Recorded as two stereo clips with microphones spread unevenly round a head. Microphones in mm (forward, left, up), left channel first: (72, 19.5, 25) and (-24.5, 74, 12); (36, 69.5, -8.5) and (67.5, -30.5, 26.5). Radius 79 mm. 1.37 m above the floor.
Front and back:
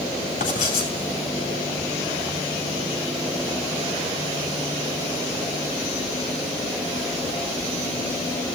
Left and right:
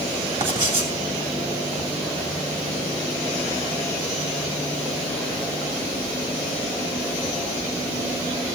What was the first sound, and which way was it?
Writing, 45° right.